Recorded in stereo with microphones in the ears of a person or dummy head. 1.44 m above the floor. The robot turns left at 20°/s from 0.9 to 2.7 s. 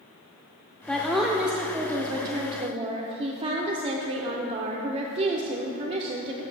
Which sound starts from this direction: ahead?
A woman speaking, at 0.9 s.